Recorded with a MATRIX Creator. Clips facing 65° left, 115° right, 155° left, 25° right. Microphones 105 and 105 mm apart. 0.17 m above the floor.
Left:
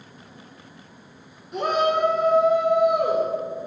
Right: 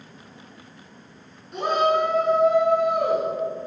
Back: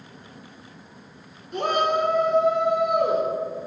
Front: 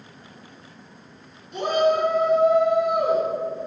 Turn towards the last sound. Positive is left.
turn(degrees=140)